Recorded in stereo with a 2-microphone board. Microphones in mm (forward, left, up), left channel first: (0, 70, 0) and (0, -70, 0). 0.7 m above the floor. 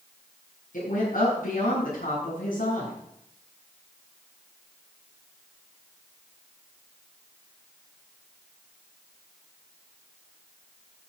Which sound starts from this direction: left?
A woman speaking, at 0.7 s.